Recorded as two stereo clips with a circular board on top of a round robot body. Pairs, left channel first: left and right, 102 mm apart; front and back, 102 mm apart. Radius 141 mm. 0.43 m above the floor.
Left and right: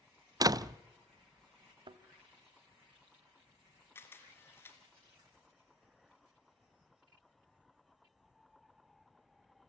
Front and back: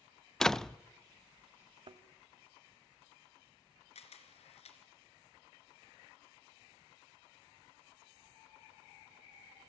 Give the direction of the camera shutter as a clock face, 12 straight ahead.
11 o'clock.